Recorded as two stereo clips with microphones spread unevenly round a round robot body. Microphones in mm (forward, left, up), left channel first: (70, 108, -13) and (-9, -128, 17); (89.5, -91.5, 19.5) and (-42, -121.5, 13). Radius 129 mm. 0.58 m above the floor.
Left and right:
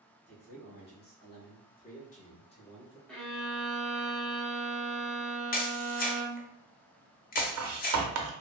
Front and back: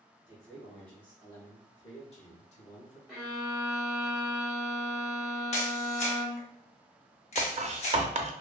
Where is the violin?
140° left, 0.9 m.